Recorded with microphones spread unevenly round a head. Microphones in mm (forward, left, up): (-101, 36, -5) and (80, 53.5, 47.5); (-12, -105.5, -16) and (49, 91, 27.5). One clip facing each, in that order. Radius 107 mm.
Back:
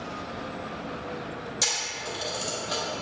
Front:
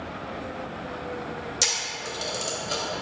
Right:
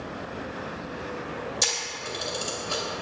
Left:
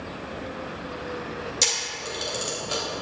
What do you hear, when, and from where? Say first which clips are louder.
1.6 s a camera shutter: front 1 dB, left 1 dB; 45° left, 1.9 m